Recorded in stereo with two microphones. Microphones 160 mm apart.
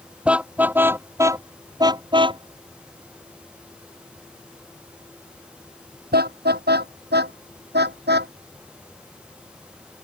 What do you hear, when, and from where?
0.2 s a car horn: 5° right (ahead or behind); by 8.3 s 90° right